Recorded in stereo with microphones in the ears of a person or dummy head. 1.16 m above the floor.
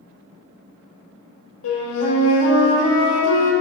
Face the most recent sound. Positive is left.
turn(degrees=90)